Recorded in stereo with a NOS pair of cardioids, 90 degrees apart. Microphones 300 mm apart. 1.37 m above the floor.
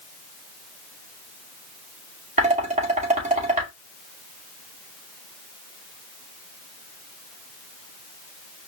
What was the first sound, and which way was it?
Dishes clattering, 25° right.